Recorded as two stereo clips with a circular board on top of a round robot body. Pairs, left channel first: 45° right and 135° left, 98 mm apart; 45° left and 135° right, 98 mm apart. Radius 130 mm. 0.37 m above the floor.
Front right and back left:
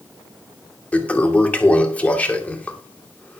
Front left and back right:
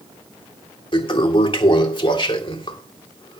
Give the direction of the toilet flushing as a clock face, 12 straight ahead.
11 o'clock.